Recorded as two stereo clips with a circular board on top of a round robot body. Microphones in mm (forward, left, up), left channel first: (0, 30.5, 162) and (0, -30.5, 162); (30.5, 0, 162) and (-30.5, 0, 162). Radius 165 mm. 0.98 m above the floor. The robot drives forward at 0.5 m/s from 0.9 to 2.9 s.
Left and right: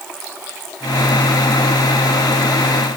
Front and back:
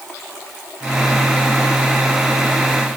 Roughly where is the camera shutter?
I don't hear a camera shutter.